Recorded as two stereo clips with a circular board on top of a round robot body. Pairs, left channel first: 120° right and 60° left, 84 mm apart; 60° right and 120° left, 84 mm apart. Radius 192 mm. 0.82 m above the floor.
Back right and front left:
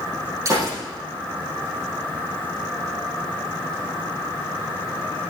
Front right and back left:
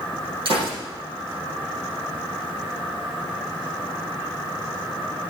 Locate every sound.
0.5 s a gunshot: 115° left, 7 m